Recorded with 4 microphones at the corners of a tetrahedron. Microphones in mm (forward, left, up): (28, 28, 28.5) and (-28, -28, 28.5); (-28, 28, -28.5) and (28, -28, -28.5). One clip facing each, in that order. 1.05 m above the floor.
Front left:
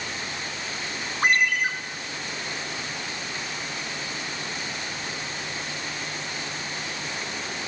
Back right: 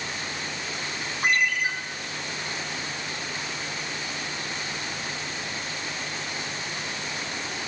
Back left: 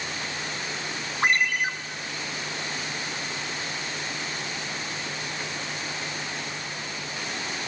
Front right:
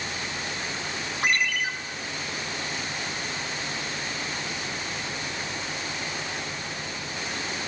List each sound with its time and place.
1.2 s a ringtone: 85° left, 1.4 m